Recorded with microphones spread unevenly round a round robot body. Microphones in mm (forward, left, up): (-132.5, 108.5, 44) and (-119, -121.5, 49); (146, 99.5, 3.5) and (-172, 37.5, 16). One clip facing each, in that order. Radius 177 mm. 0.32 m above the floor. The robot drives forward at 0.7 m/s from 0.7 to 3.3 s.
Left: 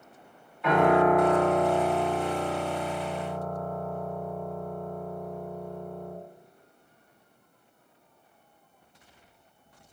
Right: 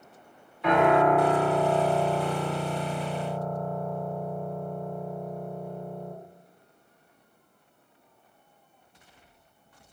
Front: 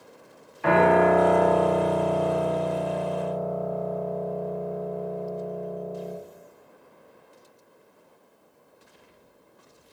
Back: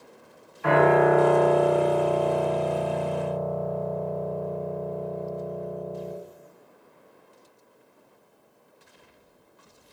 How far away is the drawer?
No drawer in this recording.